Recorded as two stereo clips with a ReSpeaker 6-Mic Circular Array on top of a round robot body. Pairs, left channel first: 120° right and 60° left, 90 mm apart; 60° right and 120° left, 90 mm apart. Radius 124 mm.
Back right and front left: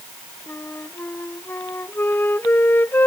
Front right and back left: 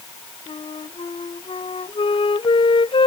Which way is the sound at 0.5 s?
55° right.